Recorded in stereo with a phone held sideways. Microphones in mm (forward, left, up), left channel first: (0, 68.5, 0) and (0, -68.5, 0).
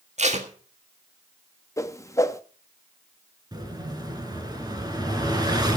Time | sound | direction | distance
0.2 | tape being pulled | 55° right (ahead or behind) | 1.8 m
1.8 | a whoosh | 20° left (ahead or behind) | 1.0 m
3.5 | an explosion | 30° right (ahead or behind) | 4 m